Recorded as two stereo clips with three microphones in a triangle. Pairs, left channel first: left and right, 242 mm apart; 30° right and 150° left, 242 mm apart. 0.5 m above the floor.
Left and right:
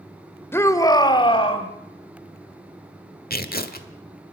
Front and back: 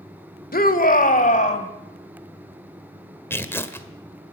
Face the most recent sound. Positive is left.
turn(degrees=50)